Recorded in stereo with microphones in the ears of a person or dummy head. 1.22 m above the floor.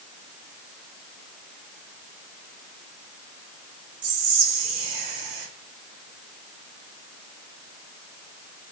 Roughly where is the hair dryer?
No hair dryer in this recording.